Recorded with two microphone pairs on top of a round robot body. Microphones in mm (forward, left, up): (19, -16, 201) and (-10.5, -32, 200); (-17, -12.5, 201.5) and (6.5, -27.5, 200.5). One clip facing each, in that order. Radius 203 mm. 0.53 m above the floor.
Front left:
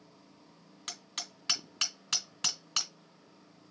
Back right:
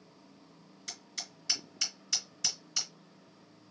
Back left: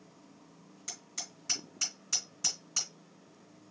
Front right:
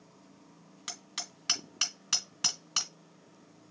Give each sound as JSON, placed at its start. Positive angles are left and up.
{"t": 0.9, "sound": "hammering", "azimuth_deg": -5, "distance_m": 2.0}